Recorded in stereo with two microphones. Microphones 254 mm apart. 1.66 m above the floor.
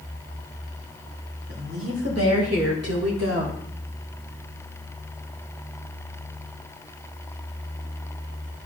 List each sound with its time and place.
1.5 s a woman speaking: 60° right (ahead or behind), 3 m; by 3.6 s 45° right (ahead or behind), 1.9 m